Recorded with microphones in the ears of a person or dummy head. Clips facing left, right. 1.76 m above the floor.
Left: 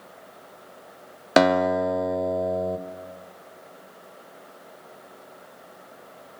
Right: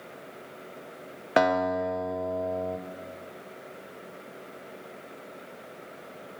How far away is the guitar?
About 0.6 m.